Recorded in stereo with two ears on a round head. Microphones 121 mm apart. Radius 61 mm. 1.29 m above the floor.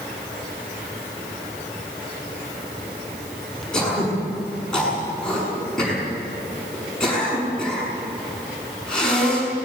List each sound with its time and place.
3.7 s throat clearing: 5° left (ahead or behind), 7 m